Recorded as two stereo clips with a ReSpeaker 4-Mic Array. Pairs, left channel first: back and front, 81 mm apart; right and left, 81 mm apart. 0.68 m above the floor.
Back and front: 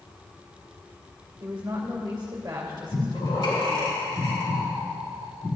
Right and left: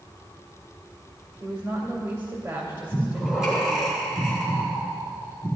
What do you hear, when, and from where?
1.4 s a woman speaking: 45° left, 2 m
2.9 s breathing: 170° left, 3.5 m